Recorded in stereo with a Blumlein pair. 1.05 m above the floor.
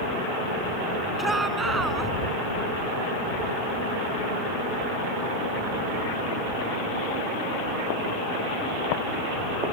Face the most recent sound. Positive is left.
turn(degrees=-10)